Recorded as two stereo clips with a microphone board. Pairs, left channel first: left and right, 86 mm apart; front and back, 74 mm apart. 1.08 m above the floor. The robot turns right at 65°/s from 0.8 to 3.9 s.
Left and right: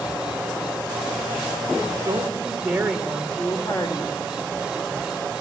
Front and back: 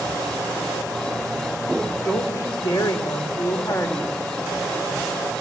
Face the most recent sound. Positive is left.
turn(degrees=60)